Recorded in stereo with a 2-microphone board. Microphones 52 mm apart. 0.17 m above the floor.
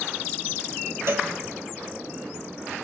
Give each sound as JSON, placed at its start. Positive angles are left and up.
{"t": 1.1, "sound": "a cowbell", "side_deg": -60, "distance_m": 0.7}